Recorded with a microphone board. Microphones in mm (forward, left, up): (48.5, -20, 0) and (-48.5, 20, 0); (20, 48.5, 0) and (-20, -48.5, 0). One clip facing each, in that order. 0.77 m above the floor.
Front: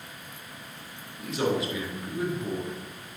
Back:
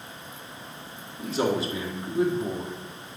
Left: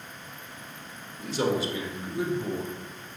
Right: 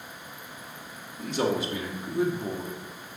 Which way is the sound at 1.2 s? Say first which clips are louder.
Back 2 dB, even; 145° right.